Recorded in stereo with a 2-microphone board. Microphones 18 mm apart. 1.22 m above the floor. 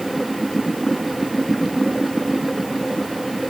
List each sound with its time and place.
Only background noise.